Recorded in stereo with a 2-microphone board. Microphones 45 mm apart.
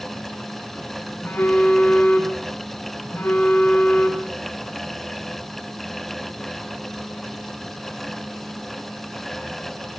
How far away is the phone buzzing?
About 7 m.